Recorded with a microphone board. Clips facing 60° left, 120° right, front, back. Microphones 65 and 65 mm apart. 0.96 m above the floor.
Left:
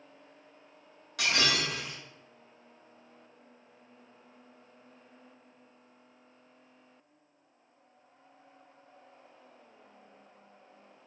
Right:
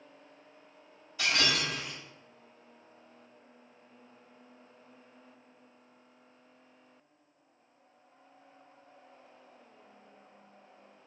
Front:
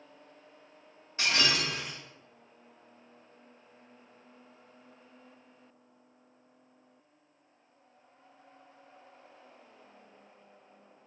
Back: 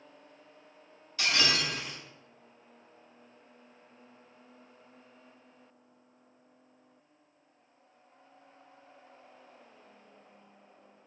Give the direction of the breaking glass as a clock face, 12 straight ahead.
10 o'clock.